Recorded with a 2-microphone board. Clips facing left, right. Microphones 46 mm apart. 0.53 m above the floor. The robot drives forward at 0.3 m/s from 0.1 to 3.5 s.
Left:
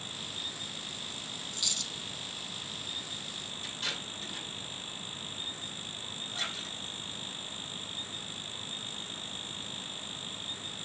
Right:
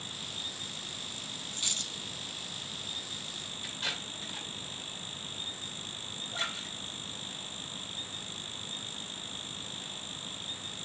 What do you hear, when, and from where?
1.5 s a dropped coin: 40° right (ahead or behind), 0.6 m; by 1.9 s 45° right (ahead or behind), 0.5 m
3.6 s tape being pulled: 10° right (ahead or behind), 2.5 m
6.3 s a splash: 25° right (ahead or behind), 1.7 m